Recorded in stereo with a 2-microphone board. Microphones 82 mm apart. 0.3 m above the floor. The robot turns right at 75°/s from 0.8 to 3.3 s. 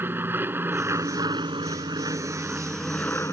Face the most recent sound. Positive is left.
turn(degrees=35)  # may be behind; listen again after turning